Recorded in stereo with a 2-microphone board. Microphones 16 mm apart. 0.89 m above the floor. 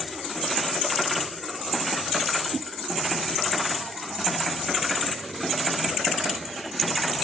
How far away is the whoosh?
About 6 m.